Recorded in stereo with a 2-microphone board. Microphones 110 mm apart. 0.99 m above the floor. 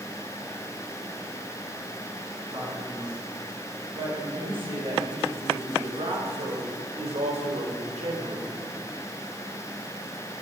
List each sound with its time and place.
2.5 s a man speaking: 40° right (ahead or behind), 8 m; by 8.5 s 75° right (ahead or behind), 3.5 m